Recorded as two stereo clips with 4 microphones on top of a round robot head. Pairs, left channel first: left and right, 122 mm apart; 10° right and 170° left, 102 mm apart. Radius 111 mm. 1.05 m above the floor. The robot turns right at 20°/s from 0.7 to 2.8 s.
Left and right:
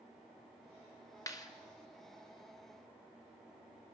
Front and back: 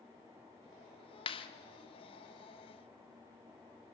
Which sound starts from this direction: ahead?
A clap, at 1.3 s.